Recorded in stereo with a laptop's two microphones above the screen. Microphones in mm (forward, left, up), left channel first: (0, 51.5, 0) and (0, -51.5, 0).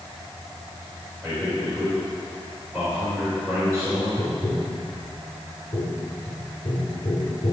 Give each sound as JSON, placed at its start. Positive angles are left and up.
{"t": 1.2, "sound": "a man speaking", "side_deg": 5, "distance_m": 4.5}
{"t": 4.2, "sound": "tapping", "side_deg": 65, "distance_m": 3.5}